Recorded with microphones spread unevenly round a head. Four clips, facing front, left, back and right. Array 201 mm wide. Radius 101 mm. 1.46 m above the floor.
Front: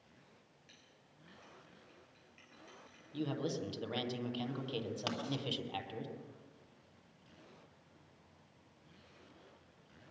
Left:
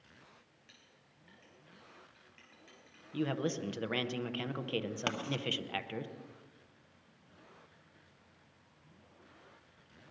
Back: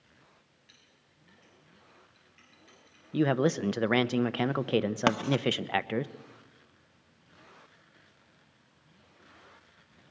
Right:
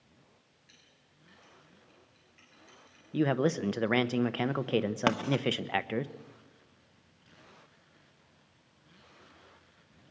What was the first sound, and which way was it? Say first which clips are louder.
A clink: even, even; 50° left.